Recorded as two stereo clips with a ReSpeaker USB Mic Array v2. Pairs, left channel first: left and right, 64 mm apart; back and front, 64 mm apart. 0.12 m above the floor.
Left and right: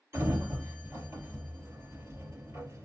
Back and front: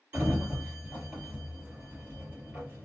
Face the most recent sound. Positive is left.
turn(degrees=-55)